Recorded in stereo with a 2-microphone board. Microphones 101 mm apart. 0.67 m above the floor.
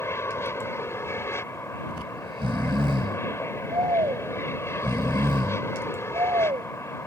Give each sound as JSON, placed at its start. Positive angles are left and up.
{"t": 0.0, "sound": "an aircraft", "side_deg": 25}
{"t": 1.9, "sound": "snoring", "side_deg": -60}